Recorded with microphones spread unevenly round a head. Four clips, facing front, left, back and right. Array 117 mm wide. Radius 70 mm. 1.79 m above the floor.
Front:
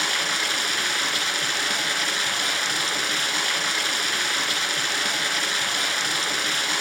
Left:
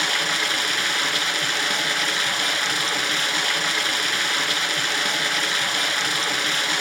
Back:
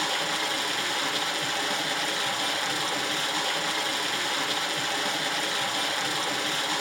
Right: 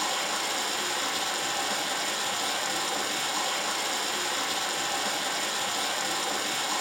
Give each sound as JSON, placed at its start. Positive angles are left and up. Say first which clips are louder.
{"t": 0.0, "sound": "running water", "louder": "left 5 dB, front 1 dB", "azimuth_deg": 60, "distance_m": 2.5}